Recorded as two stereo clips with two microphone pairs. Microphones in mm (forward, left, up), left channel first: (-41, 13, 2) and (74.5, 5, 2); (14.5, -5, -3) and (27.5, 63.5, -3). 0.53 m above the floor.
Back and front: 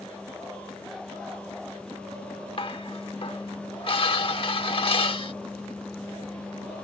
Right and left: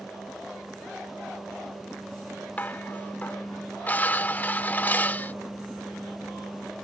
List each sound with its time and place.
2.6 s dishes clattering: 160° right